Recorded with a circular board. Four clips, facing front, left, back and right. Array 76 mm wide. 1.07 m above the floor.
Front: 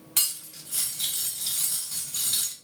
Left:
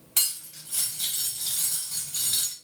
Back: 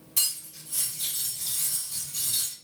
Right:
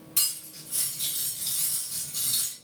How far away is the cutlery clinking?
About 1.2 m.